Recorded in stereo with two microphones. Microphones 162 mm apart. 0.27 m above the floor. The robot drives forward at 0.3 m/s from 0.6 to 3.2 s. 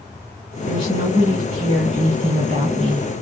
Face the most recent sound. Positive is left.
turn(degrees=-50)  # may be behind; listen again after turning